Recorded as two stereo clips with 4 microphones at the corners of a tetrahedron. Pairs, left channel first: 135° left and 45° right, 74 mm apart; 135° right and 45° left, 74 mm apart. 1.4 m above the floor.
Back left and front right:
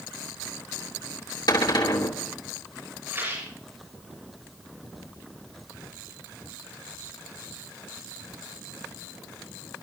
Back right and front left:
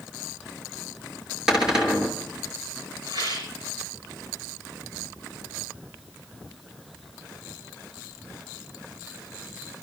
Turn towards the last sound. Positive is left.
turn(degrees=15)